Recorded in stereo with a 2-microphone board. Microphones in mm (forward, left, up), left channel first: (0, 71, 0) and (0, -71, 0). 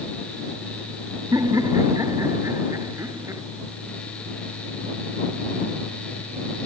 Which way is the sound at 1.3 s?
25° right (ahead or behind).